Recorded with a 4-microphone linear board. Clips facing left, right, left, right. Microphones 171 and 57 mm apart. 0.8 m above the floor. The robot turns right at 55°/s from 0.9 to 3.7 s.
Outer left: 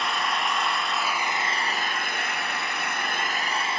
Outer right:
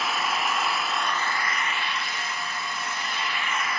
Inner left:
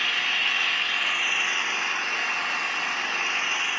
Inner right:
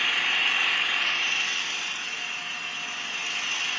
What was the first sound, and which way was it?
An engine running, 5° right.